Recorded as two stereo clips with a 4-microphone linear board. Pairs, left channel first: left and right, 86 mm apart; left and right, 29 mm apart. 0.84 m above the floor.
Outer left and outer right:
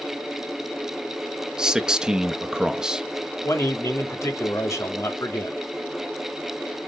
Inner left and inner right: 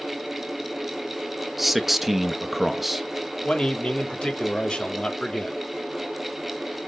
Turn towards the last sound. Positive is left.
turn(degrees=35)  # may be behind; listen again after turning